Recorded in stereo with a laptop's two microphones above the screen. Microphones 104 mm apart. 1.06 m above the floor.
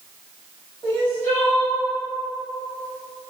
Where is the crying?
15° left (ahead or behind), 1.1 m.